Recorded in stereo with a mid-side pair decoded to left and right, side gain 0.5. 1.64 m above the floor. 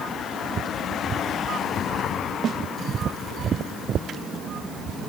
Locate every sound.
2.4 s a snare drum: 55° right, 2.5 m